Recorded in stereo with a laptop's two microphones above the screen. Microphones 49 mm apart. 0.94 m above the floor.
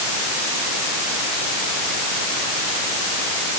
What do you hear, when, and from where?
Only background noise.